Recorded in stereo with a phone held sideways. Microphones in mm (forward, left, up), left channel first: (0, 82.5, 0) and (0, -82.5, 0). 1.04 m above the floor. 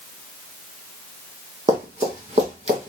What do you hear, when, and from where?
1.7 s running footsteps: 45° right (ahead or behind), 2.5 m; by 2.9 s 40° right (ahead or behind), 1.8 m